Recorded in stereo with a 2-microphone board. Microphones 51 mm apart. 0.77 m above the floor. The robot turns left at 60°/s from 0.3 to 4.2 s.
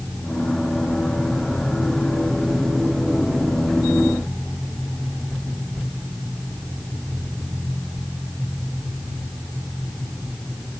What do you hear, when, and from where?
Only background noise.